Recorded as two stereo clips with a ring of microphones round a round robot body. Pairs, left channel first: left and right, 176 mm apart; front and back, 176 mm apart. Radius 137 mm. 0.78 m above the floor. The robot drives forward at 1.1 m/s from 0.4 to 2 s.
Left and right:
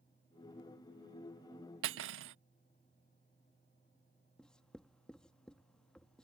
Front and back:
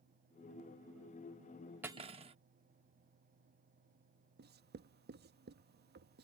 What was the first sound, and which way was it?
Cutlery clinking, 95° right.